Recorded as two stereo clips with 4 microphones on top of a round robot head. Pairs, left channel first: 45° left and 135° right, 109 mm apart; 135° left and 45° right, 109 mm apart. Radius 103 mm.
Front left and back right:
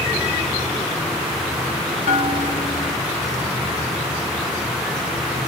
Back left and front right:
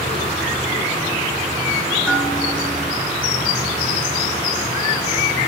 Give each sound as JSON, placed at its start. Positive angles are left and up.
{"t": 2.1, "sound": "a bell", "azimuth_deg": 50, "distance_m": 1.8}